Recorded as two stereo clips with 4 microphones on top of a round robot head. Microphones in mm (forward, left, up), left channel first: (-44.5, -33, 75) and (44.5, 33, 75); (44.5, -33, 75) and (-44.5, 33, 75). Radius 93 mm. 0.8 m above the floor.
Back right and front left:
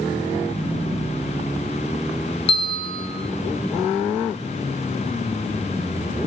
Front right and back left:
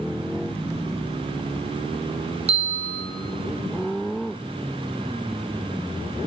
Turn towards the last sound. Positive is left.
turn(degrees=175)